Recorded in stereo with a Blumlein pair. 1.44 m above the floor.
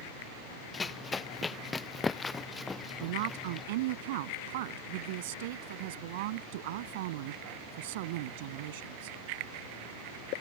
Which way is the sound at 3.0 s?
50° right.